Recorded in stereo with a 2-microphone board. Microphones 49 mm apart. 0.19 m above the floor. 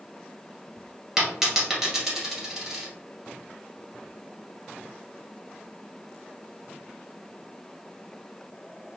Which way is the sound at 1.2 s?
10° right (ahead or behind).